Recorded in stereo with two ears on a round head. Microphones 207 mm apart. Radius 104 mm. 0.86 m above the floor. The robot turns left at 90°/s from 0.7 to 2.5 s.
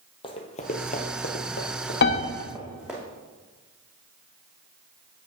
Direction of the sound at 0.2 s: 25° left (ahead or behind).